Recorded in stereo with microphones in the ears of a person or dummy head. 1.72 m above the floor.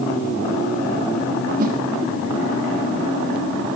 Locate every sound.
1.6 s a whoosh: 50° right (ahead or behind), 2.5 m